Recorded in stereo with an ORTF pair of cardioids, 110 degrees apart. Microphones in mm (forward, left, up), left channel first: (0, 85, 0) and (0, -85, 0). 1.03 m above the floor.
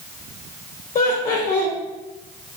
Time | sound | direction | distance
0.9 | laughter | 50° left | 0.8 m